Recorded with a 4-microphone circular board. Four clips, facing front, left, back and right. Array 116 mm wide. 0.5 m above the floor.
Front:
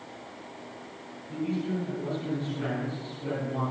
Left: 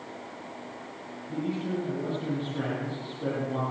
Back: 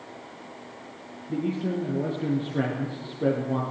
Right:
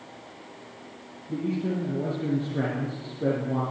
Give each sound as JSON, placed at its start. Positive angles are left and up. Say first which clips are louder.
{"t": 1.3, "sound": "a man speaking", "louder": "right 3 dB, back 3 dB", "azimuth_deg": -150, "distance_m": 8.0}